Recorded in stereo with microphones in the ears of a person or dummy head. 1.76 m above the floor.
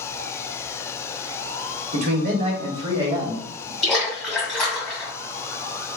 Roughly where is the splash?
Centre.